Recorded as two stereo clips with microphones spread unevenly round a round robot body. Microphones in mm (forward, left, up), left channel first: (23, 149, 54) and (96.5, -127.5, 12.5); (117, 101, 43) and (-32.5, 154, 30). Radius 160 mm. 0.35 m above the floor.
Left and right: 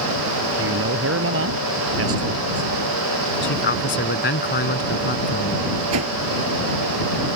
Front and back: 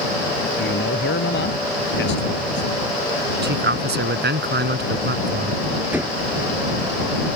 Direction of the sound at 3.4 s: 165° left.